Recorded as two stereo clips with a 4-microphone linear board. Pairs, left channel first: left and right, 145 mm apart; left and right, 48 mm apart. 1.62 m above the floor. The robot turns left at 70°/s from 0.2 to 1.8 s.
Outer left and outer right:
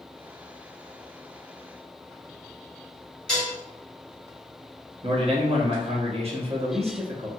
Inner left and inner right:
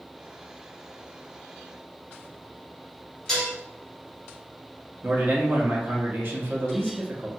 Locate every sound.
3.3 s dishes clattering: 5° left (ahead or behind), 1.3 m
5.0 s a man speaking: 45° right (ahead or behind), 0.8 m